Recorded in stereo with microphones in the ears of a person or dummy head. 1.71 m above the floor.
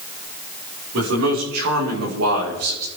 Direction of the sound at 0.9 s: 75° right (ahead or behind).